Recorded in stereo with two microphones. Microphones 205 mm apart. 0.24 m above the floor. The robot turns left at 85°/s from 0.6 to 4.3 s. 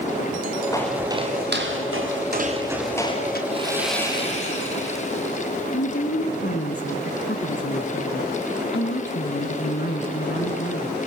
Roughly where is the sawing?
Behind right.